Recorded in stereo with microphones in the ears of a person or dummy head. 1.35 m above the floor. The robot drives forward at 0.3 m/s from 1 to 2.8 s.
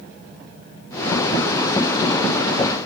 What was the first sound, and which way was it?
Only background noise.